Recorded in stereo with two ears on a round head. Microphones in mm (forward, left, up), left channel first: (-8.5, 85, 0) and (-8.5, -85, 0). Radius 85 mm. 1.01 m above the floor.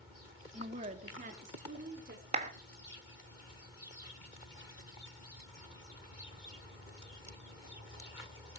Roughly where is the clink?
I don't hear a clink.